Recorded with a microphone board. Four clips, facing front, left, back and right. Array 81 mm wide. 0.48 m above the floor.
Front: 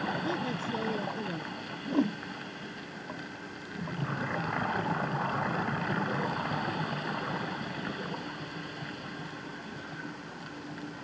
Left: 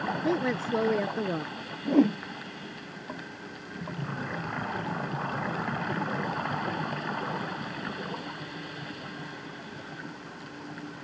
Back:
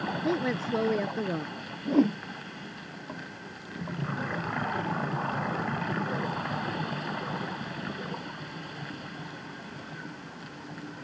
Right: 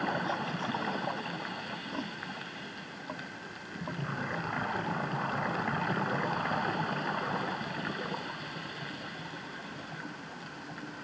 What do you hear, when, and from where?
0.2 s a woman speaking: 125° left
1.9 s a whoosh: 115° left